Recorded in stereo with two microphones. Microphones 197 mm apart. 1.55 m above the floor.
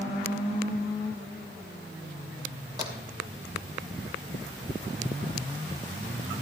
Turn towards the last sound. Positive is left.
turn(degrees=-20)  # may be behind; listen again after turning